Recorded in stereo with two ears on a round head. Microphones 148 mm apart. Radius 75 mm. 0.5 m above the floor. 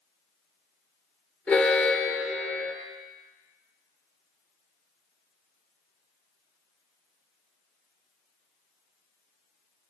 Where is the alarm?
10° left (ahead or behind), 0.7 m.